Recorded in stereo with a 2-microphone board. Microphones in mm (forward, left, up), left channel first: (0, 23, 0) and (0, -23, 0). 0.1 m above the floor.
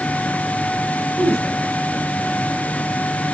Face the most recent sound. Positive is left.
turn(degrees=-65)  # may be behind; listen again after turning